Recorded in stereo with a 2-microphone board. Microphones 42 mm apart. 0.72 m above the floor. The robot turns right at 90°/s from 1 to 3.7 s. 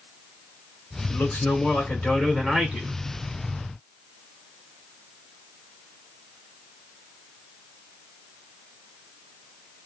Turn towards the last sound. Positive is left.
turn(degrees=-60)